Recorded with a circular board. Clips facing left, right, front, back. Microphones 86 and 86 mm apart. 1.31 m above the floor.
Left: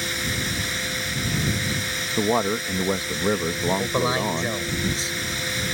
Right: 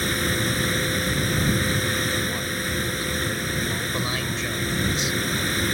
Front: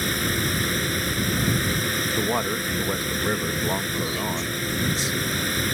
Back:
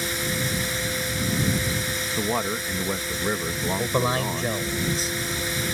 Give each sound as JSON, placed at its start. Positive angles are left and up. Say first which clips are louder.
{"t": 0.0, "sound": "running water", "louder": "right 4 dB, front 2 dB", "azimuth_deg": -40}
{"t": 2.2, "sound": "a man speaking", "louder": "left 6 dB, even", "azimuth_deg": 85}
{"t": 3.8, "sound": "a man speaking", "louder": "left 5 dB, back 4 dB", "azimuth_deg": 145}